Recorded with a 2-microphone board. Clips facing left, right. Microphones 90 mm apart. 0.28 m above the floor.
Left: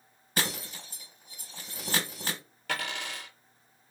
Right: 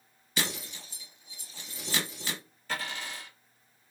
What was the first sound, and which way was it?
Breaking glass, 50° left (ahead or behind).